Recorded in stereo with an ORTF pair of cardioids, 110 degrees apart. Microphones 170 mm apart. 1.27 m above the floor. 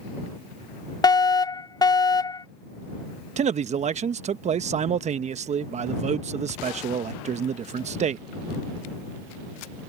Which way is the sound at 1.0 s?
20° left.